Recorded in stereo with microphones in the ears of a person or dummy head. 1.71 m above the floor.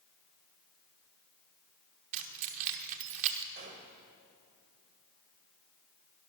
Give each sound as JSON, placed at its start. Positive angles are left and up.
{"t": 2.1, "sound": "keys jangling", "side_deg": -40, "distance_m": 1.0}
{"t": 3.5, "sound": "a gunshot", "side_deg": -40, "distance_m": 1.7}